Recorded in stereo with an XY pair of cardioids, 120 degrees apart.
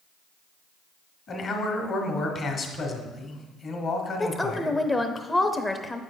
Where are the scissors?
No scissors in this recording.